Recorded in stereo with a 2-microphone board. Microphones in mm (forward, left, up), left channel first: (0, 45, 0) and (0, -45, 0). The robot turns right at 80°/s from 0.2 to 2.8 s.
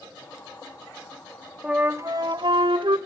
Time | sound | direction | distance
1.6 | a flute | 170° right | 0.8 m